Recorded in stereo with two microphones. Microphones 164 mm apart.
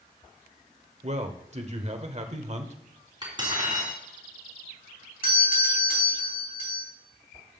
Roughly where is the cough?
I don't hear a cough.